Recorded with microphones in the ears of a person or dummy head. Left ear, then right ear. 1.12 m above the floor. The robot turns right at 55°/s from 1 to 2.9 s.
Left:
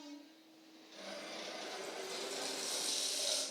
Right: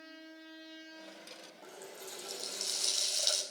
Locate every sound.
1.6 s a running tap: 125° right, 4 m; by 3.4 s 55° right, 4 m